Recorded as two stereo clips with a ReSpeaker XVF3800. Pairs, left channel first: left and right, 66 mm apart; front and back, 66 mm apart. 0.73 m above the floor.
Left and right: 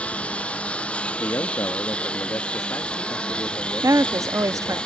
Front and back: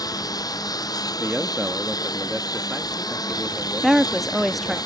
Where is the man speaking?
100° left.